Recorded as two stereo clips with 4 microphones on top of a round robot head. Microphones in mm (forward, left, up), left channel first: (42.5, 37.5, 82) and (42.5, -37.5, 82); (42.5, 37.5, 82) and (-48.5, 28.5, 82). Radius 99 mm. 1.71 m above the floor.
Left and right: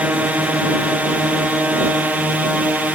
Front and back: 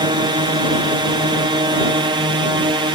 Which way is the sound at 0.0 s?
155° right.